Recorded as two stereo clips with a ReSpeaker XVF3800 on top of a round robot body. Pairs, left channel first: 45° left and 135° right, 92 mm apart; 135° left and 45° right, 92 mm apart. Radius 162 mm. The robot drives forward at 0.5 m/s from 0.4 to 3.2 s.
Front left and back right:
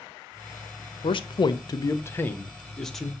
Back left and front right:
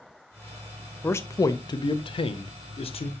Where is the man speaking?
70° left, 0.8 m; by 3.1 s 135° left, 1.1 m.